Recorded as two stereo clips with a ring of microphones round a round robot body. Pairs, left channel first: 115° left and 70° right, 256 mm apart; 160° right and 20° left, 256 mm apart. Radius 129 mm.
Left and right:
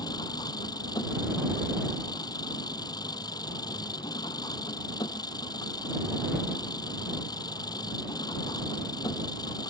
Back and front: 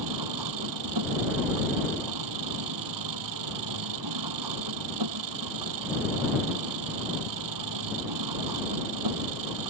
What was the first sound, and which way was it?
An engine running, 35° left.